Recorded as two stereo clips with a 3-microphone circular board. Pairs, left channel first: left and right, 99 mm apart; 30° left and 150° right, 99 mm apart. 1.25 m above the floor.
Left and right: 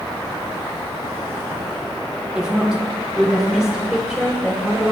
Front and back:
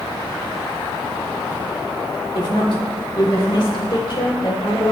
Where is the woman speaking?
5° right, 3 m.